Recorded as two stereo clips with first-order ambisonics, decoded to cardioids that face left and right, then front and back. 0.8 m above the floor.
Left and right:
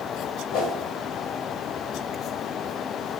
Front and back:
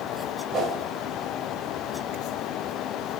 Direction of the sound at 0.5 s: 110° left.